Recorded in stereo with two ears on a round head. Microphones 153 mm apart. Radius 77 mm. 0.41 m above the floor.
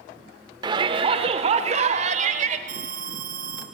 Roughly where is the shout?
Right.